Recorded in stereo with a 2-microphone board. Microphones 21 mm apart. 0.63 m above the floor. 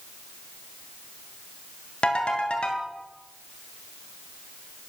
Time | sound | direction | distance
2.0 | a ringtone | 70° left (ahead or behind) | 2.5 m